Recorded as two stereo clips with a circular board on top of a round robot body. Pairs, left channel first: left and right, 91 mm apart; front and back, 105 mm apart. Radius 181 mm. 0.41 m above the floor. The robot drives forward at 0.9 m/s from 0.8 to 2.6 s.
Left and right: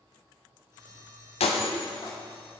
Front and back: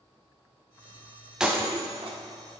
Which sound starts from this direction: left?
Breaking glass, at 1.4 s.